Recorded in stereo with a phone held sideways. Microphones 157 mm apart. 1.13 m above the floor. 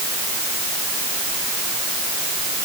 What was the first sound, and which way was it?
Only background noise.